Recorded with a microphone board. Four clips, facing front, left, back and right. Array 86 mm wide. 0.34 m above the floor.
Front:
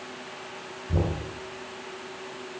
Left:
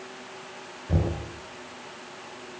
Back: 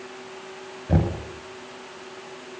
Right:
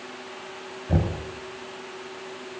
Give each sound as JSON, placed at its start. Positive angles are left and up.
{"t": 0.9, "sound": "knocking", "azimuth_deg": -170, "distance_m": 3.5}